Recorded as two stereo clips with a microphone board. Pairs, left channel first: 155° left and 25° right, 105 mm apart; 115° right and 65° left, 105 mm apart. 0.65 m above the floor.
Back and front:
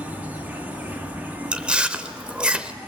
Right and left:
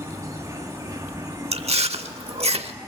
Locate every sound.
0.0 s an insect: 40° left, 1.9 m
1.5 s chewing: 55° left, 0.8 m